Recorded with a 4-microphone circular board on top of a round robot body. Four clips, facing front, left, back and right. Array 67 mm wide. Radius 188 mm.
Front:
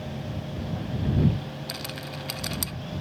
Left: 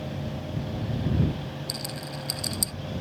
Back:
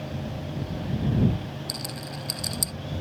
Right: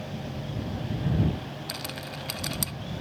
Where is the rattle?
45° right.